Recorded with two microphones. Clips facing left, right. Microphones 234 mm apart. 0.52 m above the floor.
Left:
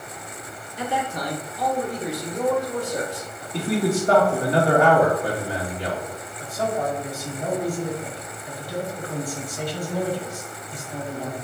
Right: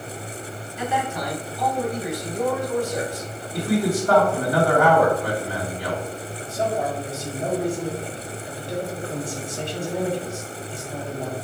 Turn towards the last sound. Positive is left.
turn(degrees=-25)  # may be behind; listen again after turning